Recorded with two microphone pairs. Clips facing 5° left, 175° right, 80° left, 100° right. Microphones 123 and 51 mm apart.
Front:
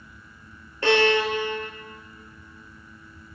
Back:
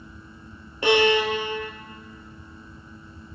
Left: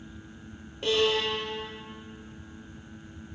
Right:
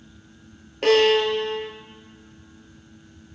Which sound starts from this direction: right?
A violin, at 0.8 s.